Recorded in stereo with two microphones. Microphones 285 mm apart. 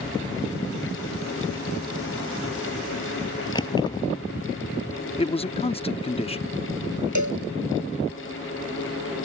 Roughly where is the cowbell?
Right.